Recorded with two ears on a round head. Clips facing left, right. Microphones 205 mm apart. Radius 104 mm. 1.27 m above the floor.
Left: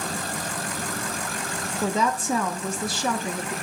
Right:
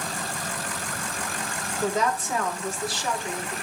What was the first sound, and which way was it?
A woman speaking, 80° left.